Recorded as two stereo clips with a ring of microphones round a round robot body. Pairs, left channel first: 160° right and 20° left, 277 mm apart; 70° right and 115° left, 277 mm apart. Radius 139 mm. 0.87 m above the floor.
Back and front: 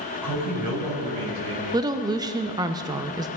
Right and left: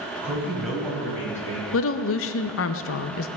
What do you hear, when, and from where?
0.2 s a man speaking: 30° left, 4 m; by 1.6 s 10° left, 5 m
1.7 s a woman speaking: 50° right, 0.6 m